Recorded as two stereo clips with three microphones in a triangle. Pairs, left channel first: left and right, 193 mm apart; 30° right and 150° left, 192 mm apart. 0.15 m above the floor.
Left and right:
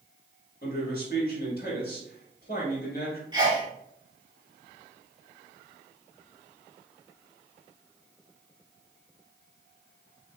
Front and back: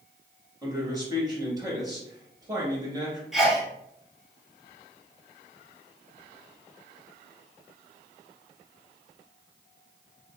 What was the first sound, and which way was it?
A man speaking, 85° left.